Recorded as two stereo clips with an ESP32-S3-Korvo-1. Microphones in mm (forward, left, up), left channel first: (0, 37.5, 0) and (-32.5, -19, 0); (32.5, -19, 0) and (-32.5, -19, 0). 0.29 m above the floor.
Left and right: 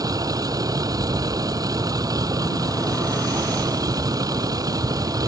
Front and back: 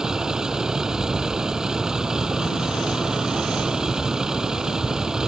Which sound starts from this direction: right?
A vehicle, at 0.0 s.